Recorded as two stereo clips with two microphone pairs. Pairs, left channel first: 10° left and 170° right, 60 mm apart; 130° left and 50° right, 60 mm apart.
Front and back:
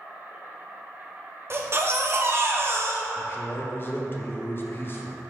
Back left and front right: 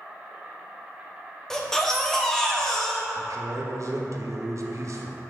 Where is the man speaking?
35° right, 0.7 m.